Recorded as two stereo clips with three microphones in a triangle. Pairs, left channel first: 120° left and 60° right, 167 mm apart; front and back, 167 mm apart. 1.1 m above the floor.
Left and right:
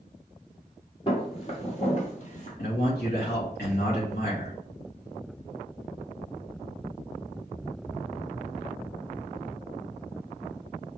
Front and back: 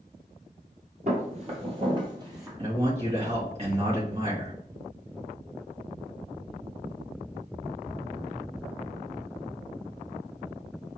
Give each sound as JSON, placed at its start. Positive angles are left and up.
{"t": 1.1, "sound": "footsteps", "azimuth_deg": 160, "distance_m": 1.5}
{"t": 2.6, "sound": "a man speaking", "azimuth_deg": 130, "distance_m": 1.7}